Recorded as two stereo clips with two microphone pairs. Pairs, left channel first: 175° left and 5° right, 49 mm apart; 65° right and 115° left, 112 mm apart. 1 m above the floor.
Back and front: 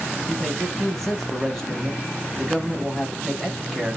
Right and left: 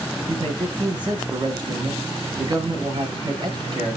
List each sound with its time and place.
0.3 s a man speaking: 95° left, 1.0 m